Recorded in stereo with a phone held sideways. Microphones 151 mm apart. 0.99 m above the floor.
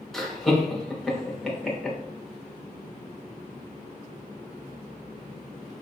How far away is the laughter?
About 0.9 m.